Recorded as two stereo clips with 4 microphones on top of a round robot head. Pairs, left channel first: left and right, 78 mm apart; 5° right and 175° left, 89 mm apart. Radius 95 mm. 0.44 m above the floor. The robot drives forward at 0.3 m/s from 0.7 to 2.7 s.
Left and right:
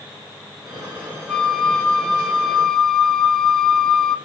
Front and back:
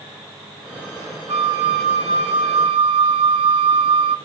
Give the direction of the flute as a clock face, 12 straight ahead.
6 o'clock.